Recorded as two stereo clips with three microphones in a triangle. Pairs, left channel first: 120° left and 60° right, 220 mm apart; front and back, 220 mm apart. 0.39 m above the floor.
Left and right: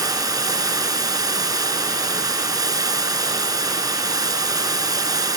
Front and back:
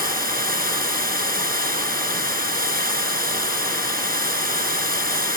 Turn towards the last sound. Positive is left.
turn(degrees=-135)